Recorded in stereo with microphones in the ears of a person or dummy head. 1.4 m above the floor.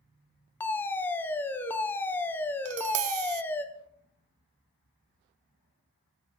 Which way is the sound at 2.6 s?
70° right (ahead or behind).